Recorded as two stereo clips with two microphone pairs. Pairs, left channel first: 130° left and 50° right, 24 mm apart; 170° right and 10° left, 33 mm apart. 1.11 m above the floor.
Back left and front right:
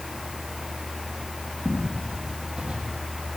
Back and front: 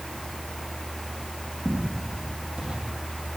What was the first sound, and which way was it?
Footsteps, 40° right.